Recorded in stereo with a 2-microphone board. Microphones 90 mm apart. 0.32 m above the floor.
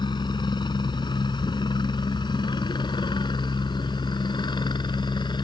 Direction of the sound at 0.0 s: 55° left (ahead or behind).